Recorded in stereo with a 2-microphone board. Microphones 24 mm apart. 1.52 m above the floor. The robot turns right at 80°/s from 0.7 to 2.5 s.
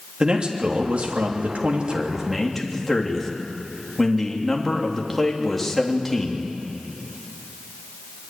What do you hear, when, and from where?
0.2 s a man speaking: 140° right, 3 m; by 6.4 s 5° left, 3 m